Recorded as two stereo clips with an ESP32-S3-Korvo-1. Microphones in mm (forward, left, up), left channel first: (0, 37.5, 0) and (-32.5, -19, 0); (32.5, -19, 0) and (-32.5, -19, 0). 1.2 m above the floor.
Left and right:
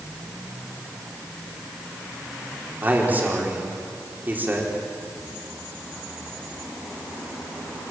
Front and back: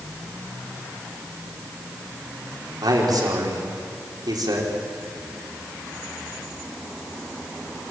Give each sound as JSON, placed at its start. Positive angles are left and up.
{"t": 2.8, "sound": "a man speaking", "azimuth_deg": 180, "distance_m": 4.0}